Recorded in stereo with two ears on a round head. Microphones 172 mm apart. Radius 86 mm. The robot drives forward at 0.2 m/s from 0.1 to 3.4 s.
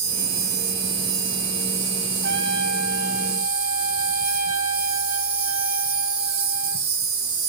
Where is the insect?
70° right (ahead or behind), 1.7 m; by 7.5 s 80° right, 1.6 m.